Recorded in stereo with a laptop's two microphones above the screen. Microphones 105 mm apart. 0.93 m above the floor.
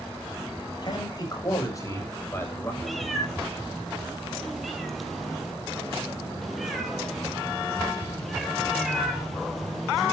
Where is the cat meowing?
Centre (ahead or behind), 2.5 m.